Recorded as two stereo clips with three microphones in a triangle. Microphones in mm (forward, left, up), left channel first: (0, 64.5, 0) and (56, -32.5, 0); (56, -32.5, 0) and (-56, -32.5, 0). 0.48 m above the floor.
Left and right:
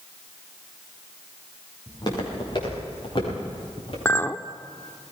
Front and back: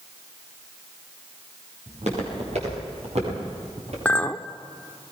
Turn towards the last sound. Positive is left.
turn(degrees=65)